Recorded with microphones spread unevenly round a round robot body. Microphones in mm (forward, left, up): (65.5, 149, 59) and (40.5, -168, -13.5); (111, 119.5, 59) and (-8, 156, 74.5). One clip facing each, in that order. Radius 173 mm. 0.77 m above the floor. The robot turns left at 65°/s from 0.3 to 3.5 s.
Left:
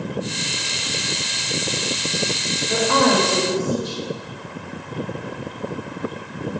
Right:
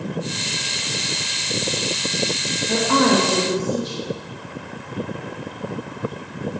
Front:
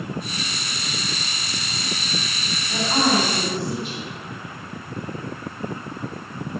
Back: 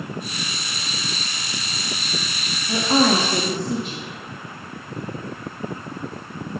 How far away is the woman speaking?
About 1.5 m.